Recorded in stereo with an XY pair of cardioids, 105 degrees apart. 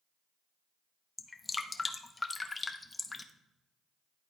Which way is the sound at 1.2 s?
20° left.